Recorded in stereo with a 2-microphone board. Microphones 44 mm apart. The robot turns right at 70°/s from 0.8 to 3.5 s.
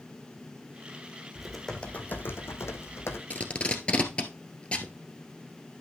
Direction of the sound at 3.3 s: 40° left (ahead or behind).